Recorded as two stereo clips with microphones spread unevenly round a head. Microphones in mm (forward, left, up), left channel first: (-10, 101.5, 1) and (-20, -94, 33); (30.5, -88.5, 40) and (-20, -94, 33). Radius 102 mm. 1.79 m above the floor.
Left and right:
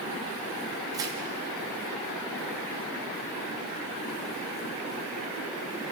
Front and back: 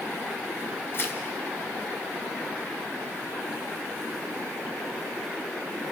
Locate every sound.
0.9 s tearing paper: 25° right, 1.7 m